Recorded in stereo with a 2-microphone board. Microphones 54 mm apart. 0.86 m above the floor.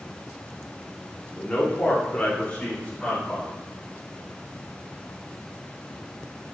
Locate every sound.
1.4 s a man speaking: 30° left (ahead or behind), 2.0 m; by 3.5 s 15° left (ahead or behind), 3.5 m